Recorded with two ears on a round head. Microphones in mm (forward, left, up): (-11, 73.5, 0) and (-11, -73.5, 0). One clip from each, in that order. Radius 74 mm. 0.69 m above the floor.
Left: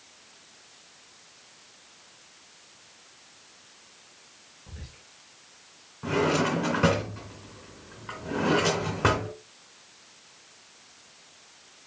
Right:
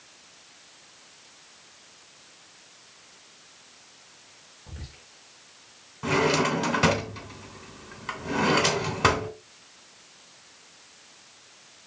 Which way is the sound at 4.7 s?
10° right (ahead or behind).